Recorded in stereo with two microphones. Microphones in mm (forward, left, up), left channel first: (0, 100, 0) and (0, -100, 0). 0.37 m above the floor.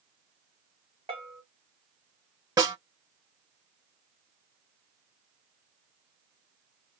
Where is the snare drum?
20° right (ahead or behind), 1.8 m.